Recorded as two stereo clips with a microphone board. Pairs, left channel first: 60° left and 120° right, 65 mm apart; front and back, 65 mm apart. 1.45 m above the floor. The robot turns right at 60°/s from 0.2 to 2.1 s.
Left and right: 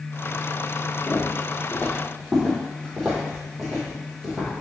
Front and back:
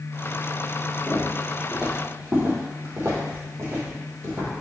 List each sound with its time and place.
1.1 s footsteps: 70° left, 1.7 m; by 4.6 s 170° left, 3 m